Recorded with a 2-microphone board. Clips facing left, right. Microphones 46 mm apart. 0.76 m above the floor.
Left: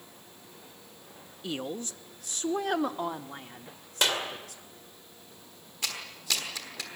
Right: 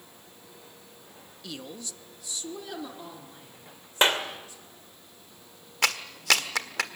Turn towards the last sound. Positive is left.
turn(degrees=-80)